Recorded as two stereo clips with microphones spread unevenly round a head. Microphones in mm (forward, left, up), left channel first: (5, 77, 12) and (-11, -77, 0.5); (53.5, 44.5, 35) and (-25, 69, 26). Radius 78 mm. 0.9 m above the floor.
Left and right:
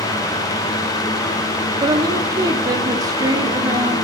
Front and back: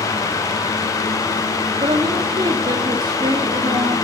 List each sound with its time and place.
1.8 s a woman speaking: 160° right, 1.9 m